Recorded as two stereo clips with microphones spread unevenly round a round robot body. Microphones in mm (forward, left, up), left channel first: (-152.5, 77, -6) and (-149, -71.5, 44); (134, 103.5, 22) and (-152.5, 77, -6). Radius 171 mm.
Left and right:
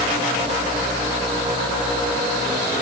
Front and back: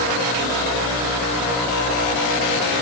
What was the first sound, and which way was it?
Only background noise.